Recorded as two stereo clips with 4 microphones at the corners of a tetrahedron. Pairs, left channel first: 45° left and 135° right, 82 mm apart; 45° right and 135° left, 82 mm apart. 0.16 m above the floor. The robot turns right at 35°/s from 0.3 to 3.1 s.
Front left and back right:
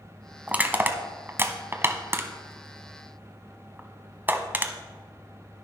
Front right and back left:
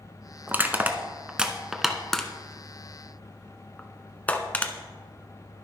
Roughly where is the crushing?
Behind.